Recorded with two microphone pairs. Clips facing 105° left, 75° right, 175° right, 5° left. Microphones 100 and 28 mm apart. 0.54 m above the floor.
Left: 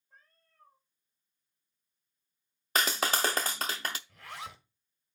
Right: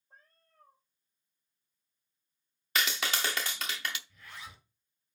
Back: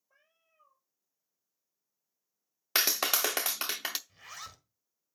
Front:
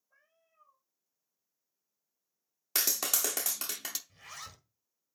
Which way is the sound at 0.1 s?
130° right.